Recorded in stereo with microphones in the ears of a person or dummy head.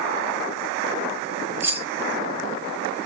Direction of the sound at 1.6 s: 20° right (ahead or behind).